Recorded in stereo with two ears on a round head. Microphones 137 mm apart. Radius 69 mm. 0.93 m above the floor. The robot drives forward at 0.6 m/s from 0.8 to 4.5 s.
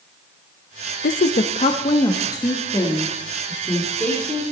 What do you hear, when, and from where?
1.0 s a woman speaking: 60° left (ahead or behind), 0.5 m; by 4.4 s 10° left (ahead or behind), 2.5 m